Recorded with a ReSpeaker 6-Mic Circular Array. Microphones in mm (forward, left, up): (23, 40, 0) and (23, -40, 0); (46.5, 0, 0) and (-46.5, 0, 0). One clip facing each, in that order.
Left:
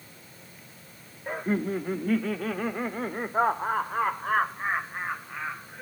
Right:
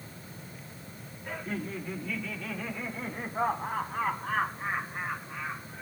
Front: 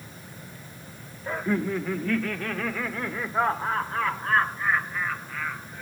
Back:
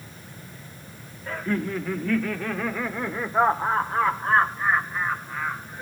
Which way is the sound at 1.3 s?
60° left.